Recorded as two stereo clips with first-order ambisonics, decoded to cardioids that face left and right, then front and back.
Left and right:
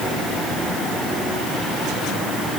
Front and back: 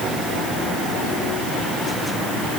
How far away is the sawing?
No sawing in this recording.